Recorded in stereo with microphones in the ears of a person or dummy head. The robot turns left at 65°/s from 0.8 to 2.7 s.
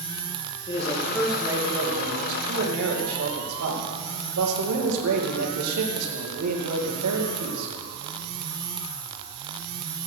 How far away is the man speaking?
About 2.5 m.